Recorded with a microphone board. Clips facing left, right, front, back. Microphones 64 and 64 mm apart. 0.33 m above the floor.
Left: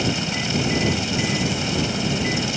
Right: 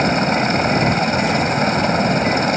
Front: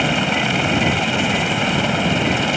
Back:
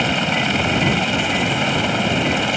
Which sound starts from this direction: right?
A helicopter, at 0.0 s.